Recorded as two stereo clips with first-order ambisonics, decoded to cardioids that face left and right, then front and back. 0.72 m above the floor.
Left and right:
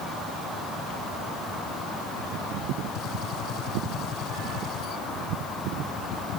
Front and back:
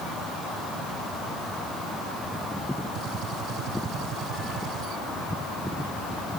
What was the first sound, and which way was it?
A gunshot, 140° left.